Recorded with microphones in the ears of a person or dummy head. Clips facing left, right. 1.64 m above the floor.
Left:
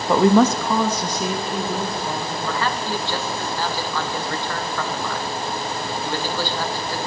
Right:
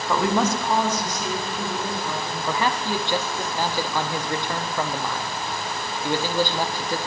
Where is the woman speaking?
20° left (ahead or behind), 0.6 m; by 2.4 s 55° left (ahead or behind), 2.5 m.